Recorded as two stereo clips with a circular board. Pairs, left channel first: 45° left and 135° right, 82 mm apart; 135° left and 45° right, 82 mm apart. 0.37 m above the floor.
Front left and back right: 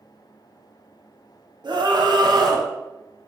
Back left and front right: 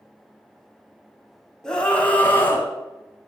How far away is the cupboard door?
No cupboard door in this recording.